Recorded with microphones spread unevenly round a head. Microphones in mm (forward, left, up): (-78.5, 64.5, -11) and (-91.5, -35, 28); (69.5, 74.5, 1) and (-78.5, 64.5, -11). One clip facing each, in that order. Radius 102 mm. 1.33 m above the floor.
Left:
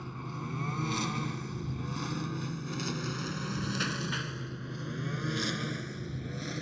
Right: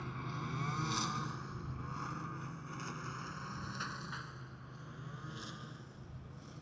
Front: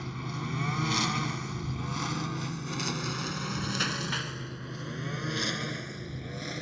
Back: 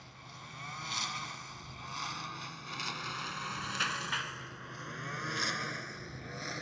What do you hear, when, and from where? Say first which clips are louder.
0.0 s a lawn mower: left 3 dB, front 16 dB; straight ahead; by 6.6 s 65° left